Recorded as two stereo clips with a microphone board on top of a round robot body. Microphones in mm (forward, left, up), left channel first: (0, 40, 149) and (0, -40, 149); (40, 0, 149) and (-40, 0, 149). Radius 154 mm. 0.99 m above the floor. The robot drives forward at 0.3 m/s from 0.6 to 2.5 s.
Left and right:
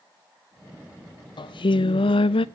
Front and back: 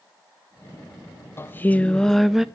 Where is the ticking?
No ticking in this recording.